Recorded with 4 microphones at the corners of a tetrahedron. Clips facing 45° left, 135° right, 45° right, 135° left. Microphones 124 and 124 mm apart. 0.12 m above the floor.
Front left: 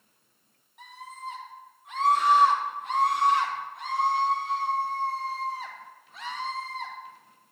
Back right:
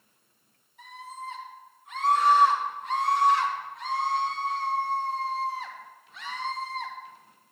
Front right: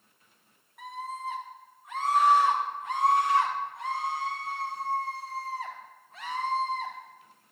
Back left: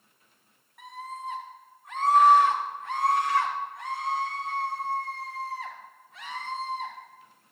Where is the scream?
45° left, 5 m; by 6.9 s 10° right, 5.5 m.